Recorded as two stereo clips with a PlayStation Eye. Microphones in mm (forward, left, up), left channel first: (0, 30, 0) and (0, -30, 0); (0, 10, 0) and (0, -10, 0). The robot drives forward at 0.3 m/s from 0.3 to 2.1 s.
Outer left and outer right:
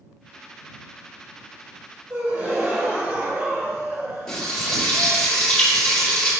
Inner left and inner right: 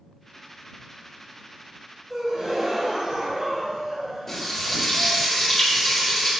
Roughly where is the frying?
Centre.